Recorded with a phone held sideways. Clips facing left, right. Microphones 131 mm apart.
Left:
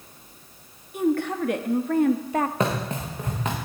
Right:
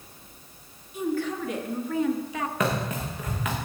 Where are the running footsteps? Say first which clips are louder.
Left 1 dB; 30° left (ahead or behind), 3 m.